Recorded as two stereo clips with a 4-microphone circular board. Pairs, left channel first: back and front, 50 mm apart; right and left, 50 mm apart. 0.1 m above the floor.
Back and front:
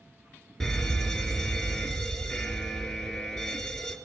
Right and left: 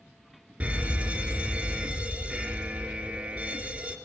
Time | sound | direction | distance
0.6 | a fire alarm | 110° left | 2.5 m